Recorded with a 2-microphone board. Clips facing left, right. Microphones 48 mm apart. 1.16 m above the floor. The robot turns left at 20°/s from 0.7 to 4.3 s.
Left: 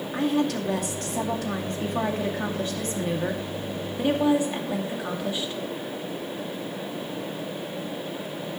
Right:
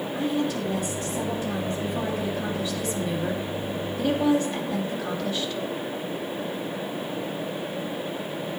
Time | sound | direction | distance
0.1 | a woman speaking | 90° left | 2.5 m